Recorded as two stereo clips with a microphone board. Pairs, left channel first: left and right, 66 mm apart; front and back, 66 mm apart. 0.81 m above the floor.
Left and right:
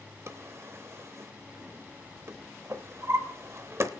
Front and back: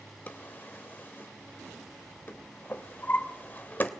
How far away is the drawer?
About 0.8 m.